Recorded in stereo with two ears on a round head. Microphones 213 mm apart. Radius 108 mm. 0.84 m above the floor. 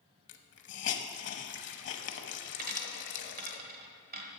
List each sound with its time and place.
0.3 s a hiss: 50° left (ahead or behind), 0.9 m
2.6 s a dropped coin: 40° right (ahead or behind), 1.3 m